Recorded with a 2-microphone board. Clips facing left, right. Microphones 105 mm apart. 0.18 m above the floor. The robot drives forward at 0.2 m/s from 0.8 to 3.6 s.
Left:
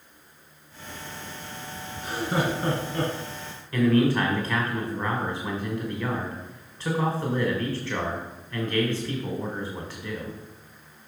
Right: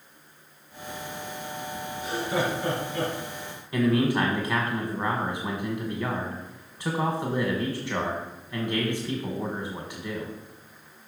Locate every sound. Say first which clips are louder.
2.0 s laughter: left 1 dB; 40° left (ahead or behind), 1.9 m
3.7 s a man speaking: left 2 dB; 15° right (ahead or behind), 1.2 m